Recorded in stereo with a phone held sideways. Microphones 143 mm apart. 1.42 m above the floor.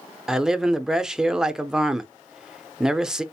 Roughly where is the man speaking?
Centre.